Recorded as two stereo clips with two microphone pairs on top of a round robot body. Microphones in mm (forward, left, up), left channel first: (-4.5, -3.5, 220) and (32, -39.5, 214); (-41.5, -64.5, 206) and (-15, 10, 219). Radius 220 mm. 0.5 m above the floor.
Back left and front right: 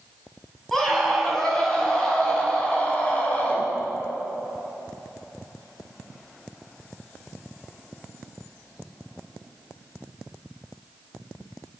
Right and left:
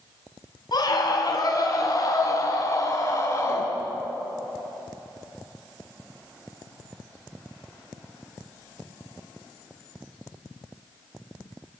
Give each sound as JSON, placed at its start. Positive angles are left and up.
{"t": 0.7, "sound": "a scream", "azimuth_deg": -140, "distance_m": 4.5}